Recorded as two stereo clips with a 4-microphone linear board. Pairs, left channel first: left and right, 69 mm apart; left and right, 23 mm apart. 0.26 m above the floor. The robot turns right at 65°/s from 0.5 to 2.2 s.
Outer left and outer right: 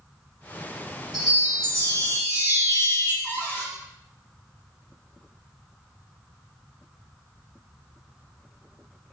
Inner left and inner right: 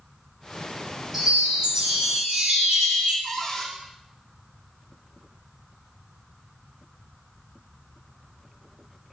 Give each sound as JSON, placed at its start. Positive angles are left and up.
{"t": 1.1, "sound": "a chime", "azimuth_deg": -175, "distance_m": 2.0}
{"t": 3.2, "sound": "a cupboard door", "side_deg": 30, "distance_m": 0.6}